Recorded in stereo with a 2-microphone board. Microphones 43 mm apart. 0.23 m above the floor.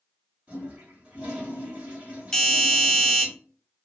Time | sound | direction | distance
0.5 | a toilet flushing | 35° right (ahead or behind) | 1.9 m
2.3 | a doorbell | 5° left (ahead or behind) | 1.5 m